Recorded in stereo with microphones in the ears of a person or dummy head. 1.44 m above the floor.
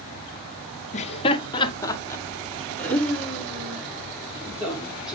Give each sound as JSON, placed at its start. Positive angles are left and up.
{"t": 0.9, "sound": "laughter", "side_deg": 35, "distance_m": 1.2}